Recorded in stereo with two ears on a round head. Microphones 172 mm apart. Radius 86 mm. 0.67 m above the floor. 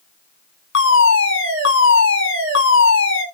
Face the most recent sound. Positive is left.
turn(degrees=75)  # may be behind; listen again after turning